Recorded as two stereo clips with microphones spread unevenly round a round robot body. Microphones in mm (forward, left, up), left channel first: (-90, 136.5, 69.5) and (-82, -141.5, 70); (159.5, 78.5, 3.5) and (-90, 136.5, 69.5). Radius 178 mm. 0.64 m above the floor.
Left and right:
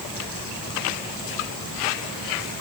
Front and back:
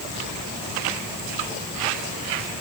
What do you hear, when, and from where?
Only background noise.